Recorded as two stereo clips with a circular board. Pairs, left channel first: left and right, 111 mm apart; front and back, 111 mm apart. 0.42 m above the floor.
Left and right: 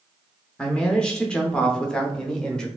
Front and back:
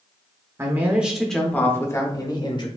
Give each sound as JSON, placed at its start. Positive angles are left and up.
{"t": 0.6, "sound": "a man speaking", "azimuth_deg": 160, "distance_m": 0.8}